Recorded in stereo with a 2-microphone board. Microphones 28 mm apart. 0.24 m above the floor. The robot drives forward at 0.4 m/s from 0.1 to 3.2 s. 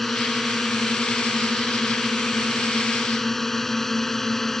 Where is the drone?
5° left (ahead or behind); by 4.6 s 10° left (ahead or behind).